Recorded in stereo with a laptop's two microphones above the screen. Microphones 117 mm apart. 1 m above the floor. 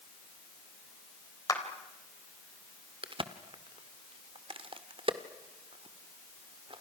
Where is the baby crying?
I don't hear a baby crying.